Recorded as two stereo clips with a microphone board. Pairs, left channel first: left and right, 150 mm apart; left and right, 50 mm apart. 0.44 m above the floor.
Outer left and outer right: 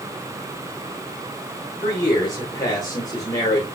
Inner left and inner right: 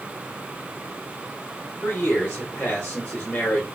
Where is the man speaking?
25° left (ahead or behind), 1.3 m.